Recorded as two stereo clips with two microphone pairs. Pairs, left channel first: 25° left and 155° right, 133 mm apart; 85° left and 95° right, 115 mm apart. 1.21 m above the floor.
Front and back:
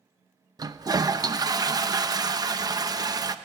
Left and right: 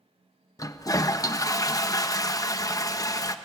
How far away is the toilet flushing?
About 0.8 m.